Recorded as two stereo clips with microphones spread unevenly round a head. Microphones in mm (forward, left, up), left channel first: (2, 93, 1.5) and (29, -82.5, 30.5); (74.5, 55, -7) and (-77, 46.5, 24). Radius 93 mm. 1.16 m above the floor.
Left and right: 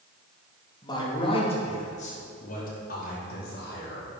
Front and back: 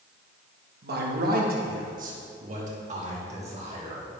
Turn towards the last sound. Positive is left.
turn(degrees=135)